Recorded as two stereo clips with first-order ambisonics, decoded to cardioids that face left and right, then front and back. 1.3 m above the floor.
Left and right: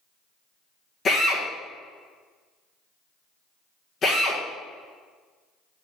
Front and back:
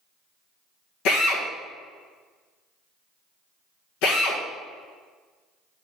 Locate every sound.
1.1 s a drill: 20° left, 1.5 m